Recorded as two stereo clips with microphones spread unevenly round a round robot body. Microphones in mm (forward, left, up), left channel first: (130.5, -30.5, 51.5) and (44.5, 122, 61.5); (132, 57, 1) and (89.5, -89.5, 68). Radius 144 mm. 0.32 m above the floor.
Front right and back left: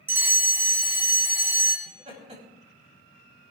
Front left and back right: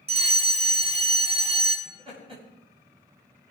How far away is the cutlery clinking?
No cutlery clinking in this recording.